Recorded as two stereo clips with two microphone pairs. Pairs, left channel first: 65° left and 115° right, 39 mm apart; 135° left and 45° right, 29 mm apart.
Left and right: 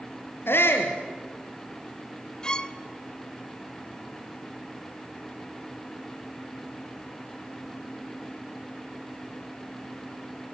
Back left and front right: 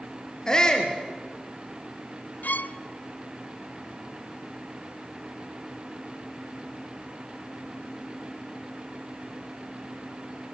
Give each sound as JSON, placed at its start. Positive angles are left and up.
{"t": 0.5, "sound": "a shout", "azimuth_deg": 65, "distance_m": 3.5}
{"t": 2.4, "sound": "a violin", "azimuth_deg": 130, "distance_m": 0.7}